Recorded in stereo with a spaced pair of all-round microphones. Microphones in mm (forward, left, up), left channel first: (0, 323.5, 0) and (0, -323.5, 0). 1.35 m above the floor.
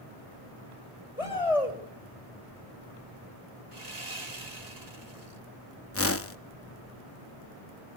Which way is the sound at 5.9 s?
20° left (ahead or behind).